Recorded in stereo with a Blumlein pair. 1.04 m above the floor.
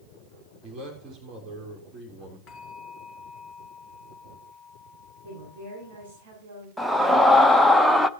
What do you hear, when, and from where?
0.6 s a man speaking: 25° right, 3.5 m
2.5 s a bell: 25° left, 2.5 m
5.2 s a woman speaking: 55° right, 7 m
6.8 s a scream: 5° left, 0.7 m